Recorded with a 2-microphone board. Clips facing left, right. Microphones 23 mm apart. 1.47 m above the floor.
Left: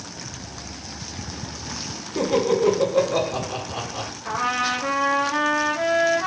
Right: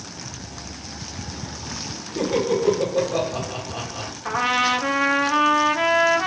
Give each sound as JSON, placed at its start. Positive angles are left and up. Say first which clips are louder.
{"t": 2.1, "sound": "laughter", "louder": "left 2 dB", "side_deg": 35, "distance_m": 1.9}
{"t": 4.2, "sound": "a trumpet", "louder": "right 3 dB", "side_deg": -35, "distance_m": 1.0}